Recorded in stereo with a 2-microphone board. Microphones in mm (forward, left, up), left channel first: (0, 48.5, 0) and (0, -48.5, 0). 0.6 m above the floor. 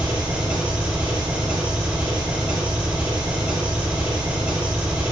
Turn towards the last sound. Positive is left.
turn(degrees=-15)  # may be behind; listen again after turning